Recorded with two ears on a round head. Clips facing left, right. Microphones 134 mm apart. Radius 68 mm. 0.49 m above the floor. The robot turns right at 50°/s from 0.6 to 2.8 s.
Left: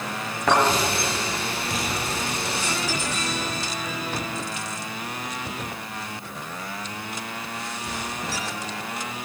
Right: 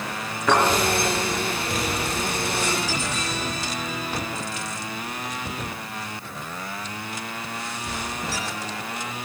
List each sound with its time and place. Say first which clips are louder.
0.5 s a thud: even; 50° left (ahead or behind), 4.5 m